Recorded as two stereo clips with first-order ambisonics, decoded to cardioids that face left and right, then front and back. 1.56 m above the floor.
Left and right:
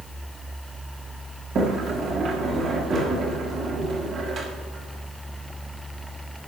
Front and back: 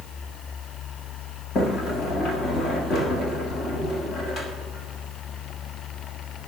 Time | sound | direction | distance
1.6 | a sliding door | 45° right | 1.3 m